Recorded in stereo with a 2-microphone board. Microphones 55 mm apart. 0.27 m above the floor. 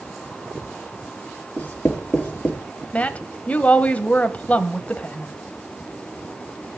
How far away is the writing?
About 4.5 m.